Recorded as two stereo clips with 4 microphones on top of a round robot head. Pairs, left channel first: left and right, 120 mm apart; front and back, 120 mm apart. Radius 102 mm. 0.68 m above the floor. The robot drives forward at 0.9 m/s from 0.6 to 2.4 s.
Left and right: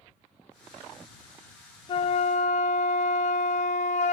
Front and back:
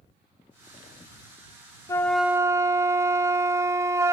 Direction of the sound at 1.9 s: 60° left.